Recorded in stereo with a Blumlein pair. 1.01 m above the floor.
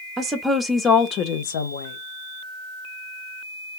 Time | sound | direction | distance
0.2 | a woman speaking | 20° right | 0.8 m